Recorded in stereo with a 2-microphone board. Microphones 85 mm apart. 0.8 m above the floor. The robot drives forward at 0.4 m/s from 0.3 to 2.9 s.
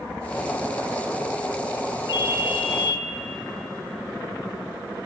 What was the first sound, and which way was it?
A ringtone, 65° left (ahead or behind).